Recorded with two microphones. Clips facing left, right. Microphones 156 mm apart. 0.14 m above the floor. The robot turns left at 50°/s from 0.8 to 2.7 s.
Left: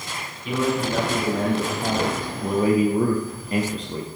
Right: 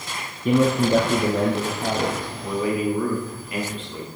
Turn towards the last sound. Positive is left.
turn(degrees=135)